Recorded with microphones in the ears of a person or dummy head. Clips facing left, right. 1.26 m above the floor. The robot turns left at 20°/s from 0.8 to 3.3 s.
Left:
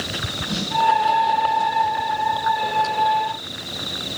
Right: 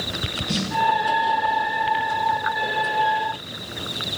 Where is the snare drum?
30° right (ahead or behind), 3 m.